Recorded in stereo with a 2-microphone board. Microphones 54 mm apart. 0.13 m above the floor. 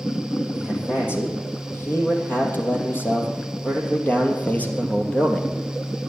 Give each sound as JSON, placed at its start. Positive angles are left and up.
{"t": 0.5, "sound": "a man speaking", "side_deg": 50, "distance_m": 4.5}